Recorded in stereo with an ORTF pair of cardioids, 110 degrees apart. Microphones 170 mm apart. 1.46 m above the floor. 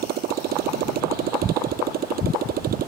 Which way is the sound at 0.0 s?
65° right.